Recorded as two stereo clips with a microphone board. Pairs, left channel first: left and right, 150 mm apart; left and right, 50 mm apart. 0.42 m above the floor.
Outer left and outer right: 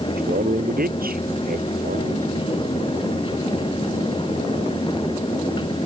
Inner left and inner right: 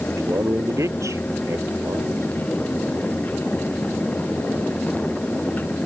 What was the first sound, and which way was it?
A man speaking, 80° right.